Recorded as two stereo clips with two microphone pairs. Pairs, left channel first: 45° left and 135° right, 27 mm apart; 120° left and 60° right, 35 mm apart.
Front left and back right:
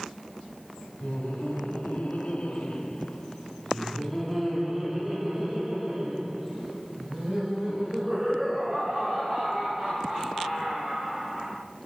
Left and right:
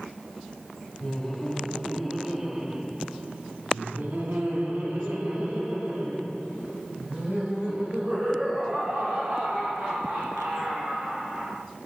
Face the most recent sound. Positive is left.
turn(degrees=-85)